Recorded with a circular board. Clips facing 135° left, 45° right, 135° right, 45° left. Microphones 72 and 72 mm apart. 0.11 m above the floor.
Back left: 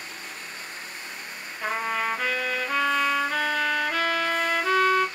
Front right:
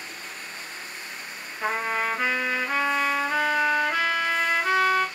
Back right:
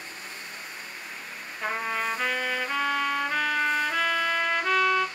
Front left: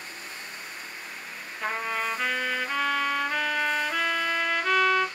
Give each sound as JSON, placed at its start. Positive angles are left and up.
{"t": 1.6, "sound": "a trumpet", "azimuth_deg": -55, "distance_m": 1.3}